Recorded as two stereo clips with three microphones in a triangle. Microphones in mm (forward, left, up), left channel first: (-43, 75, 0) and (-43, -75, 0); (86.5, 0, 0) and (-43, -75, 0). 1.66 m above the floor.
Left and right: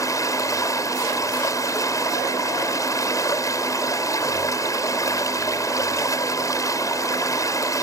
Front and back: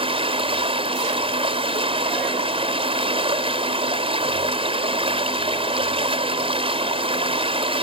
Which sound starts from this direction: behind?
Running water, at 0.0 s.